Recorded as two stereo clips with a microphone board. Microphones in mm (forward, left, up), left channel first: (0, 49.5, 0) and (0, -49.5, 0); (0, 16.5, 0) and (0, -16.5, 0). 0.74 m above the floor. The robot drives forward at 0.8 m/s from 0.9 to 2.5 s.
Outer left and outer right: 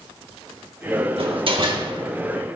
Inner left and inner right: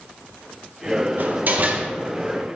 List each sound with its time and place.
1.2 s a door slam: 65° right (ahead or behind), 1.0 m; by 1.9 s 45° right (ahead or behind), 1.2 m